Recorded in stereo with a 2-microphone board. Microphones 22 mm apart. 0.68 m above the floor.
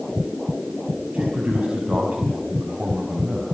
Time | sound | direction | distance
1.1 | a man speaking | 80° right | 5.5 m